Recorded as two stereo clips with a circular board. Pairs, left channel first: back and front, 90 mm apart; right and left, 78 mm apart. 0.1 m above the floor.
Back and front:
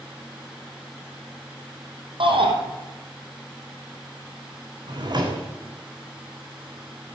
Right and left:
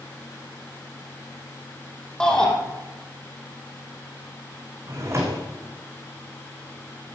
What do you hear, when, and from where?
2.2 s a shout: 10° right, 4 m
4.9 s a drawer: 40° left, 3.5 m